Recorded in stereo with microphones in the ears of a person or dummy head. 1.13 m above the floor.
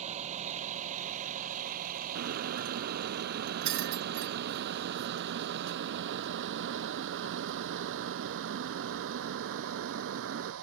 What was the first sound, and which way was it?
A vehicle, 40° right (ahead or behind).